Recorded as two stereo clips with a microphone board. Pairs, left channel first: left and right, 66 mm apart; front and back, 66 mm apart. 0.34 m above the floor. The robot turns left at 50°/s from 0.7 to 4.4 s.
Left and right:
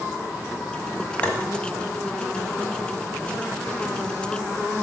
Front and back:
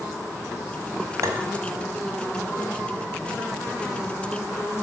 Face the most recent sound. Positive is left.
turn(degrees=0)